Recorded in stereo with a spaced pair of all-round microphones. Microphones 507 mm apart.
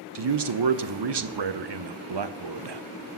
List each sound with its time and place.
0.1 s a man speaking: 55° right (ahead or behind), 0.5 m